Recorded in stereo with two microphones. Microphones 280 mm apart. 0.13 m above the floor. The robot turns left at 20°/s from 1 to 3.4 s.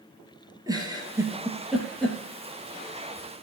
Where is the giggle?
15° right (ahead or behind), 2.5 m; by 2.2 s 5° left (ahead or behind), 2.5 m.